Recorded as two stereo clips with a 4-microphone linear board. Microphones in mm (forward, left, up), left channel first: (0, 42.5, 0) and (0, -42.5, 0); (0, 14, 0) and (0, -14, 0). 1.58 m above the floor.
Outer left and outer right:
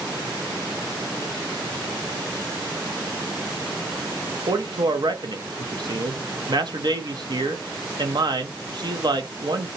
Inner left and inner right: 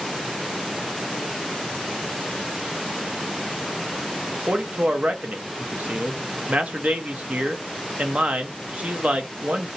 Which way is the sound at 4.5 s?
55° right (ahead or behind).